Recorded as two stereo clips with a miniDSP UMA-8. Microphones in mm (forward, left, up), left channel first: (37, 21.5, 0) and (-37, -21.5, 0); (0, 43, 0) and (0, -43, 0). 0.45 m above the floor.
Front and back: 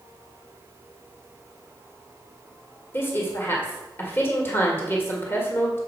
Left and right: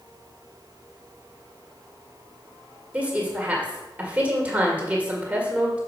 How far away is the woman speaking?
About 1.5 m.